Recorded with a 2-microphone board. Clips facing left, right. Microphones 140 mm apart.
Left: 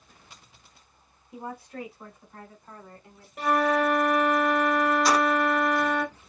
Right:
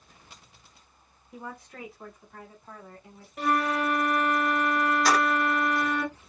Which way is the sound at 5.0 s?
Centre (ahead or behind).